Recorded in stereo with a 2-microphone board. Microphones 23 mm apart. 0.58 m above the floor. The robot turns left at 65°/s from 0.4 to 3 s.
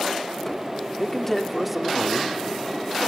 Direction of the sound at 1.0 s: 40° left.